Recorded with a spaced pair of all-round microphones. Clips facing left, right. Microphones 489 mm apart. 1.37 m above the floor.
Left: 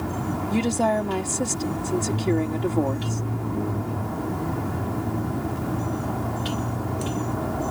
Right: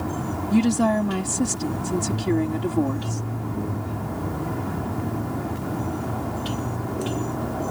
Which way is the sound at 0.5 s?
30° right (ahead or behind).